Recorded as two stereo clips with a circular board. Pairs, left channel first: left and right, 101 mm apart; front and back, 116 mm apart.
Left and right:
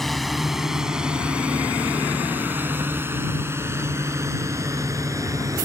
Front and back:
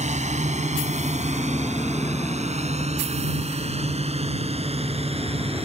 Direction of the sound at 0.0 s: Straight behind.